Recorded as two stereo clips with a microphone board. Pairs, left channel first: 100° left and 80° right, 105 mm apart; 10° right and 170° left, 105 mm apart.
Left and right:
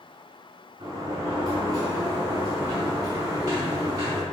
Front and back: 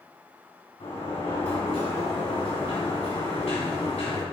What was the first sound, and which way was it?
A sliding door, 25° right.